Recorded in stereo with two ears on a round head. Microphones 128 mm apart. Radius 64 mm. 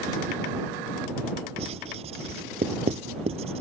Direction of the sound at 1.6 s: 45° right (ahead or behind).